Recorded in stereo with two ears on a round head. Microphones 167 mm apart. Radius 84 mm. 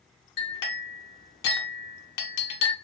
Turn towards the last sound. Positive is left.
turn(degrees=55)  # may be behind; listen again after turning